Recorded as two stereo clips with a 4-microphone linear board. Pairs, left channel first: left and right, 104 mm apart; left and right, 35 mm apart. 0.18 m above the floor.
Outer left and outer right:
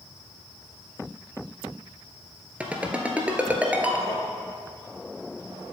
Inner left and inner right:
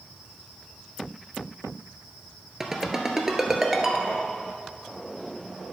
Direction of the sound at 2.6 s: 10° right (ahead or behind).